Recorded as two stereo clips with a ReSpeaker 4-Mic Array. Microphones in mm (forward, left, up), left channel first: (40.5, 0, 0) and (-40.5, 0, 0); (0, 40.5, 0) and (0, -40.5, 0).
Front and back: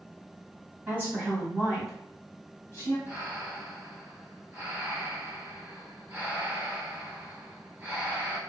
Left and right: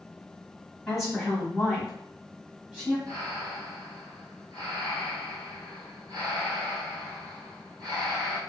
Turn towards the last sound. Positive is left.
turn(degrees=-125)